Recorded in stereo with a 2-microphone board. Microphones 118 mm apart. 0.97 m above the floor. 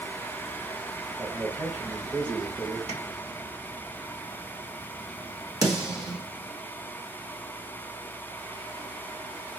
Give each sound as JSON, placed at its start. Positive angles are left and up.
{"t": 1.2, "sound": "a man speaking", "side_deg": -20, "distance_m": 0.7}
{"t": 2.9, "sound": "tapping", "side_deg": -65, "distance_m": 1.3}
{"t": 5.6, "sound": "a snare drum", "side_deg": -30, "distance_m": 1.1}